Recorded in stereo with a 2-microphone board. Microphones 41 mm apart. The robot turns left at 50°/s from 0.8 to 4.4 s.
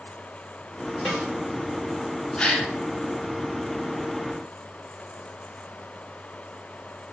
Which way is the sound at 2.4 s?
25° left (ahead or behind).